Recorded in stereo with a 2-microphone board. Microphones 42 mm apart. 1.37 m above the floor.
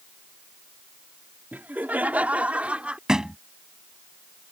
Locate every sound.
1.5 s laughter: 50° right (ahead or behind); by 3.0 s 30° right (ahead or behind)
3.1 s a thud: 15° right (ahead or behind)